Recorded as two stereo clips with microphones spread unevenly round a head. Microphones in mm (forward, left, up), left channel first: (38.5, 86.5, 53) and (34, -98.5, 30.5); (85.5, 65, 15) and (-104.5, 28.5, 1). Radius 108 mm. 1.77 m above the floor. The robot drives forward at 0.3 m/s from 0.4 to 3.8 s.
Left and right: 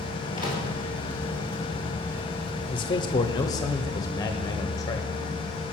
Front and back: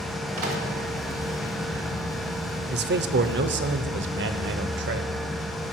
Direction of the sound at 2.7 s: 155° left.